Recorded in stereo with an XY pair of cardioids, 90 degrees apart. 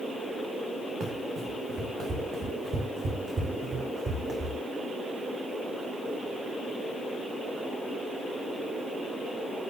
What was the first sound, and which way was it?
Running footsteps, 65° right.